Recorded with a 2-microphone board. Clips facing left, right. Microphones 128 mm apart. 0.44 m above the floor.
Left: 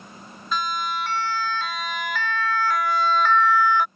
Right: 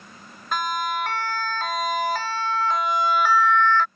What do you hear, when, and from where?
0.5 s a siren: 55° right (ahead or behind); by 3.9 s 15° left (ahead or behind)